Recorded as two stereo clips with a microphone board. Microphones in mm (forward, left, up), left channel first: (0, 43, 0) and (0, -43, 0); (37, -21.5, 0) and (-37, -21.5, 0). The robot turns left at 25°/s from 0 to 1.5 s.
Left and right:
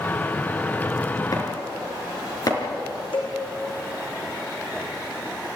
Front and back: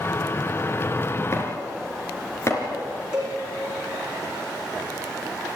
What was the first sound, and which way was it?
Chopping, 50° left.